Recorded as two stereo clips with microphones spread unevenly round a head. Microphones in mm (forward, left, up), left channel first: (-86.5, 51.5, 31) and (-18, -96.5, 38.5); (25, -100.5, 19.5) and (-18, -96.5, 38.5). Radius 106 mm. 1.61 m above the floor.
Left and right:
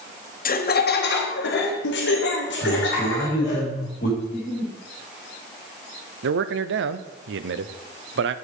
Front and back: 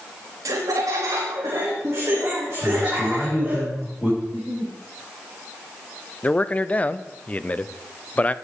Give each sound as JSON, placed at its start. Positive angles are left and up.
{"t": 0.5, "sound": "laughter", "azimuth_deg": 150, "distance_m": 1.0}
{"t": 2.6, "sound": "a man speaking", "azimuth_deg": 70, "distance_m": 3.0}
{"t": 4.2, "sound": "a giggle", "azimuth_deg": 90, "distance_m": 2.0}
{"t": 6.2, "sound": "a man speaking", "azimuth_deg": -65, "distance_m": 0.7}